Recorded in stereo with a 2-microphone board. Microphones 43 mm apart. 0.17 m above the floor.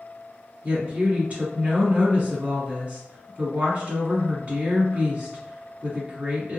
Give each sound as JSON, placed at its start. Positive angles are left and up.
{"t": 0.6, "sound": "a woman speaking", "side_deg": -40, "distance_m": 1.4}